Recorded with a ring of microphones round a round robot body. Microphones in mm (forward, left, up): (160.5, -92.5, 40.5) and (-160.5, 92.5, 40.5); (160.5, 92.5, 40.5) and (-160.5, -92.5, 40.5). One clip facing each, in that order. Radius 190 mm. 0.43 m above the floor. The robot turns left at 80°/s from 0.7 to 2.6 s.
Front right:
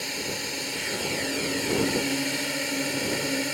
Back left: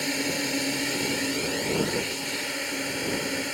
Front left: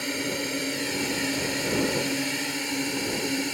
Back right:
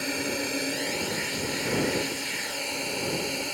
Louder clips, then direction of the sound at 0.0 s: Back left 6 dB, front left 1 dB; 115° left.